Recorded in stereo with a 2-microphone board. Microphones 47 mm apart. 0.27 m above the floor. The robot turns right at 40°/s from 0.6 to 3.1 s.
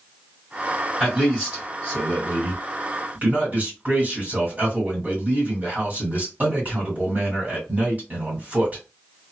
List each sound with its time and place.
1.0 s a man speaking: 170° right, 1.7 m; by 8.8 s 85° right, 1.7 m